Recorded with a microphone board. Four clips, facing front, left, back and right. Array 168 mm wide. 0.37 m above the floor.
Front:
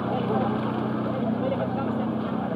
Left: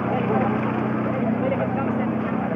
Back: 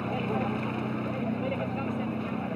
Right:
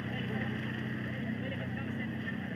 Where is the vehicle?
70° left.